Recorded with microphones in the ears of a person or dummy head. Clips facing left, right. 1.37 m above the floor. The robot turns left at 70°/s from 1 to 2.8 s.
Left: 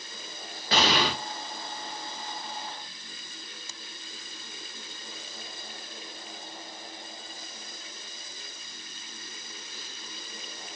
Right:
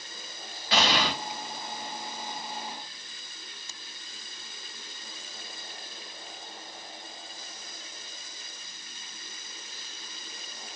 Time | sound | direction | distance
0.7 | an explosion | 35° left (ahead or behind) | 1.2 m